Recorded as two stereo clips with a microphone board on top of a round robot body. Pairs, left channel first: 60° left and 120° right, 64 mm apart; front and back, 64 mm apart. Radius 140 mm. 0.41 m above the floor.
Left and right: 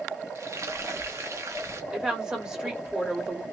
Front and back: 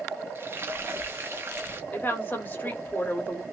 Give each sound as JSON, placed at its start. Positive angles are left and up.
{"t": 0.3, "sound": "frying", "azimuth_deg": -140, "distance_m": 1.0}
{"t": 1.9, "sound": "a woman speaking", "azimuth_deg": -45, "distance_m": 1.7}